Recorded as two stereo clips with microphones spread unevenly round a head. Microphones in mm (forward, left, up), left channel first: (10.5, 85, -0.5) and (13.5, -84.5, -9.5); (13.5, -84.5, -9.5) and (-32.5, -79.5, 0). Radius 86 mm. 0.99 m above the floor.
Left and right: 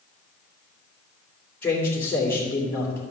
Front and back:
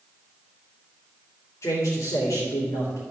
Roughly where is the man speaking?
Ahead.